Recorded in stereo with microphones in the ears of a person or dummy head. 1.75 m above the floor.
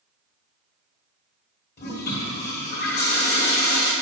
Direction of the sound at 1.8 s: 50° left (ahead or behind).